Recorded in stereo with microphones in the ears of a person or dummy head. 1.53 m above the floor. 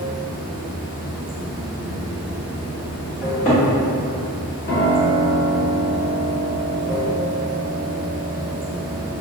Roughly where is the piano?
Left.